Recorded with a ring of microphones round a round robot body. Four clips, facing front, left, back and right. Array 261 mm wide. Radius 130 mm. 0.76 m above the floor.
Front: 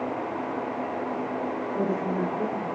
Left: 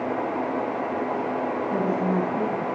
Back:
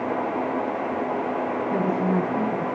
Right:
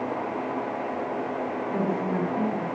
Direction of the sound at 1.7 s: 165° left.